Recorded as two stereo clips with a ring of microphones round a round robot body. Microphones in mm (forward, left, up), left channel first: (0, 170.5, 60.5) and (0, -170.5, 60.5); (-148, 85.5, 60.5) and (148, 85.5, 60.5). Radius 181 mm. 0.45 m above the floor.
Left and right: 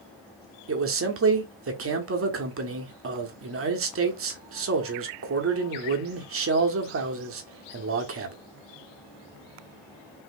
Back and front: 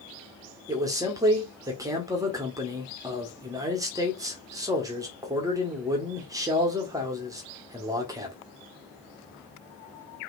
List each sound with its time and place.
0.7 s a man speaking: 75° right, 1.2 m